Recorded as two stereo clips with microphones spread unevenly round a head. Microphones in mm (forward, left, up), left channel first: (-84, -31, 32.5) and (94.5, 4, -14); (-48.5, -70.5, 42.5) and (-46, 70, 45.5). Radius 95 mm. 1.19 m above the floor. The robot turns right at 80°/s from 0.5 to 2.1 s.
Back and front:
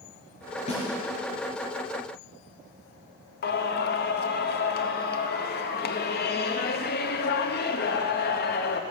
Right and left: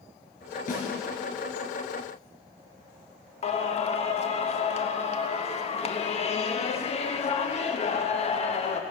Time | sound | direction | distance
0.7 | a snare drum | 120° right | 5.5 m
3.4 | singing | 135° right | 1.0 m